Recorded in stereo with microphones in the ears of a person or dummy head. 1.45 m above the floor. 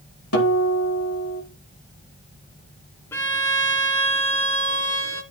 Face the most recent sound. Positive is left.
turn(degrees=10)  # may be behind; listen again after turning